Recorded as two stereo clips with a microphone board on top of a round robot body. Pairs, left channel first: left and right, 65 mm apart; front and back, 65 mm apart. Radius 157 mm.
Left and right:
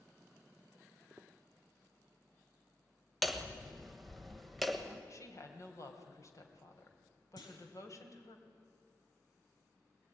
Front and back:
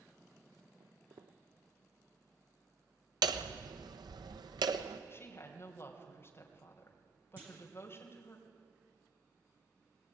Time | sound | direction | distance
0.8 | footsteps | 170° right | 0.6 m
3.2 | hammering | straight behind | 1.1 m
5.1 | a woman speaking | 55° left | 3 m
7.4 | a clunk | 110° left | 3 m